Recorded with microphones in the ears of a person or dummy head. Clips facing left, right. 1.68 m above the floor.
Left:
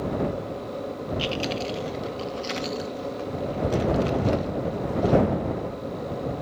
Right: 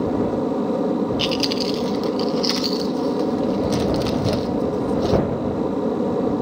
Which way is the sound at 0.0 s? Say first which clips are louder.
Right 7 dB; 65° right (ahead or behind).